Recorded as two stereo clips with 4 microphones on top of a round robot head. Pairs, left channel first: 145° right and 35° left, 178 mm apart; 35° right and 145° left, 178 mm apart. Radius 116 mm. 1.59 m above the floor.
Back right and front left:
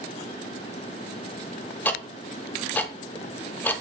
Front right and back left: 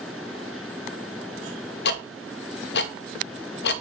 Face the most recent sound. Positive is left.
turn(degrees=-65)